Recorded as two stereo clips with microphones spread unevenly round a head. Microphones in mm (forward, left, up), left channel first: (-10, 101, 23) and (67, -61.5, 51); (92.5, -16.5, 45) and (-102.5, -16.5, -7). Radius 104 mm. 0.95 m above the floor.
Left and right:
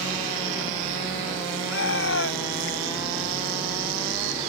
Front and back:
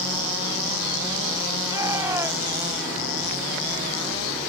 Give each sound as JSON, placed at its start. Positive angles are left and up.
{"t": 1.6, "sound": "a shout", "azimuth_deg": 100}